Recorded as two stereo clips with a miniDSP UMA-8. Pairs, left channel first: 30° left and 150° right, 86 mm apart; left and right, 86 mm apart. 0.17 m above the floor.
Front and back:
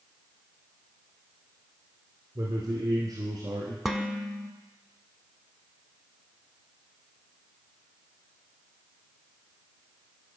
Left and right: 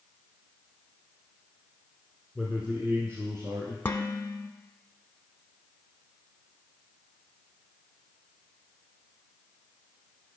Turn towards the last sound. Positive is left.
turn(degrees=125)